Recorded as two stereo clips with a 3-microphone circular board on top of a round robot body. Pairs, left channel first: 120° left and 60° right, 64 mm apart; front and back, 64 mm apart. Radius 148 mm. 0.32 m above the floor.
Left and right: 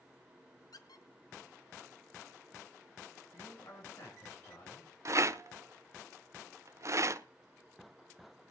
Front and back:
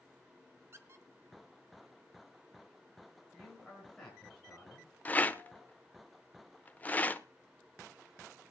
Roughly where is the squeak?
Behind left.